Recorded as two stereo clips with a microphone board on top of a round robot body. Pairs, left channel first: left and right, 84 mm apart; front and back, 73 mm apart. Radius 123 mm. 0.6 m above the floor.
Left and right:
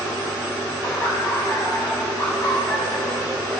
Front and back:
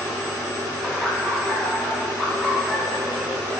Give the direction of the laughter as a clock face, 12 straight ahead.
9 o'clock.